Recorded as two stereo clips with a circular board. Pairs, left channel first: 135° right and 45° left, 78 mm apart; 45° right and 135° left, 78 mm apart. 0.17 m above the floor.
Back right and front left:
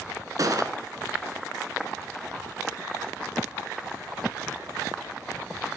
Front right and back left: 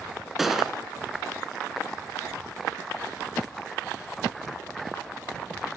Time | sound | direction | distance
0.4 | a gunshot | 50° left | 1.4 m